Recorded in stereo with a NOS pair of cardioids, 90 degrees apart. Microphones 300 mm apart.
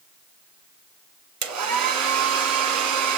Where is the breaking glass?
No breaking glass in this recording.